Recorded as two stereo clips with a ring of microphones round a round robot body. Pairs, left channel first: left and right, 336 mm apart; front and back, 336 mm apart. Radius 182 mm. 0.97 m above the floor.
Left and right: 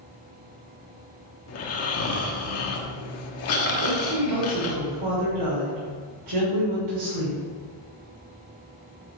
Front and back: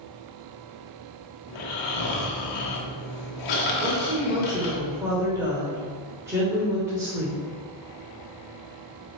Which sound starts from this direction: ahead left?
Snoring, at 1.5 s.